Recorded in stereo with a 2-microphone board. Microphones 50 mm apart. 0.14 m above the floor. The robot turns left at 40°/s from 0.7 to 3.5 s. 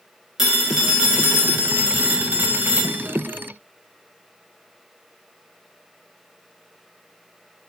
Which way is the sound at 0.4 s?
10° right.